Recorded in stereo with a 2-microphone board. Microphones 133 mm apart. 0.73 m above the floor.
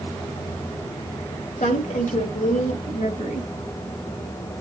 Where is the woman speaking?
75° left (ahead or behind), 3 m; by 3.5 s 60° left (ahead or behind), 3.5 m.